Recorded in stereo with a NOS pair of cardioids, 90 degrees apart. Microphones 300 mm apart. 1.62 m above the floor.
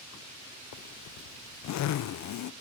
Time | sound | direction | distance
0.7 | a zipper | 65° left | 0.9 m